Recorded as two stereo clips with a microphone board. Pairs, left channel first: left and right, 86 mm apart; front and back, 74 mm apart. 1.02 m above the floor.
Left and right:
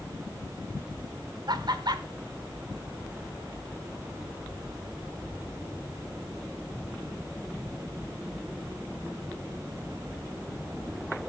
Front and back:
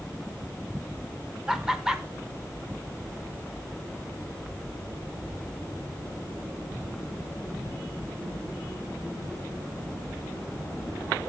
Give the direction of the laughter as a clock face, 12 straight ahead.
3 o'clock.